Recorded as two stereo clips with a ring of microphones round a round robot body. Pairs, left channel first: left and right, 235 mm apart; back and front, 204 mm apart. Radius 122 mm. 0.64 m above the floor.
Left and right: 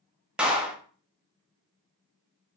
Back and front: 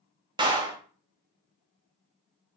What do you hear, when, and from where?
0.4 s a clap: 10° right, 0.6 m